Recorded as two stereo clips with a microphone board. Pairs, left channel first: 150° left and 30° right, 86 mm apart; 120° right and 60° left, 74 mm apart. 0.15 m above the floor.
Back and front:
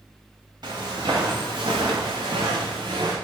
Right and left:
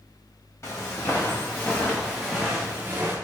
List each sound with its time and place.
0.6 s footsteps: 65° right, 1.5 m; by 3.2 s straight ahead, 1.1 m